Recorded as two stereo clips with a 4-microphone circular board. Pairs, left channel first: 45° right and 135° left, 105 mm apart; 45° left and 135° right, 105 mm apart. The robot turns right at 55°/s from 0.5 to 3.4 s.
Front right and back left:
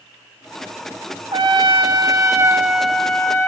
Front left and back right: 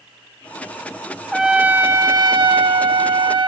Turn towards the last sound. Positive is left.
turn(degrees=-110)